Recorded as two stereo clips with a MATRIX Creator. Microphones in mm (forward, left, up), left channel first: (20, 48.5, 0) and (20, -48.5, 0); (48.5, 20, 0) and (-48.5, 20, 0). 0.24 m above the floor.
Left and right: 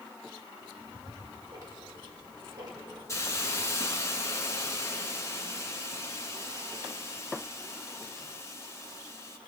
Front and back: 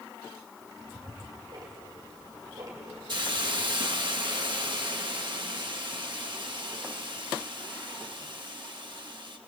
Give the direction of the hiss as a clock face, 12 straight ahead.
7 o'clock.